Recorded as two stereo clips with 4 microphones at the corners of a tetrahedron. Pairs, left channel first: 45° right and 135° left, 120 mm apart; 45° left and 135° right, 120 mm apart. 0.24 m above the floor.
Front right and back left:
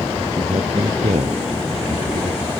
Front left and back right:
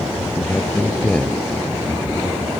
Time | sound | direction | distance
0.4 | a man speaking | 125° left | ?